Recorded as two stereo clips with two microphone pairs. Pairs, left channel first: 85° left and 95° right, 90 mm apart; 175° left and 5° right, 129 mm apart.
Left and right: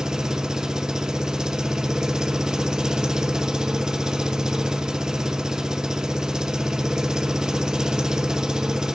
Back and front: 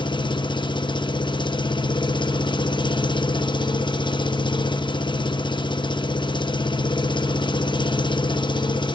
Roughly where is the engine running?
Behind.